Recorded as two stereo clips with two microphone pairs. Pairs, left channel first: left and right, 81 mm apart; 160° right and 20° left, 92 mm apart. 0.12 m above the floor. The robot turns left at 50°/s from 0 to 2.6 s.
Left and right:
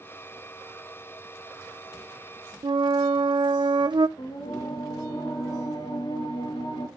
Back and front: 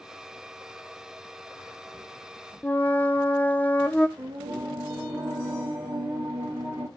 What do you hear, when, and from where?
2.6 s a flute: 85° right, 0.8 m
4.2 s singing: 90° left, 6 m